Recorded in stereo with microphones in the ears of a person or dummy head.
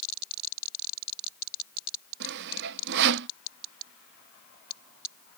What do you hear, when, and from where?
2.2 s sawing: 60° right (ahead or behind)